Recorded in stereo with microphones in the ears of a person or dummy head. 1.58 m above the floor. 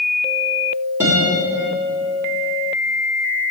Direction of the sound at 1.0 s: 10° right (ahead or behind).